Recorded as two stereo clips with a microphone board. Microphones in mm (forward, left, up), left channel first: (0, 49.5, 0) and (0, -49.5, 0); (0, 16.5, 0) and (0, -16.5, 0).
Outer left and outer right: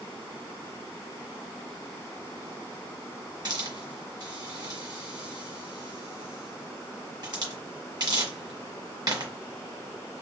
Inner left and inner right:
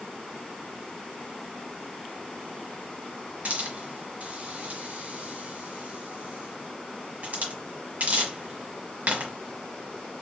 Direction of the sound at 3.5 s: 50° right (ahead or behind).